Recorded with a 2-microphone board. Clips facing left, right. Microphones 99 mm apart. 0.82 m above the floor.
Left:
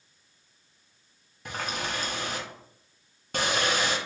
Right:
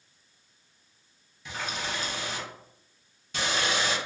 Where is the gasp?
I don't hear a gasp.